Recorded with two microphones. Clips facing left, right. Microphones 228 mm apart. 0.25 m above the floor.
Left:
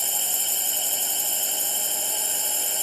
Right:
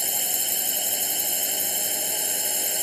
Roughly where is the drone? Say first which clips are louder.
Right 2 dB; centre.